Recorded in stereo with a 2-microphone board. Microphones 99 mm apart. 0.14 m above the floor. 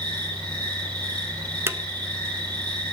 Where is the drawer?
25° right (ahead or behind), 0.7 m.